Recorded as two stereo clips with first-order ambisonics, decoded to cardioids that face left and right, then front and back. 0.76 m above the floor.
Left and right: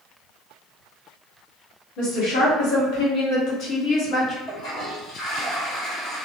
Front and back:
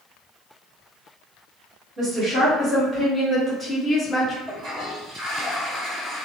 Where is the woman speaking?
105° left, 1.6 m; by 4.4 s 40° left, 0.7 m.